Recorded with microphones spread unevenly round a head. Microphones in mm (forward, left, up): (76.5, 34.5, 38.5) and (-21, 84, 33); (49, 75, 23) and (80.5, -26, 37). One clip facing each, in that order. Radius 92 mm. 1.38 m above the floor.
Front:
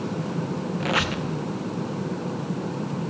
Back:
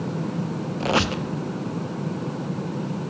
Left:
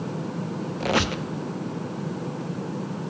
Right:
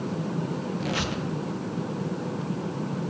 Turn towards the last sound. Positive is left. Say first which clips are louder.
# back 5 dB, left 4 dB
turn(degrees=105)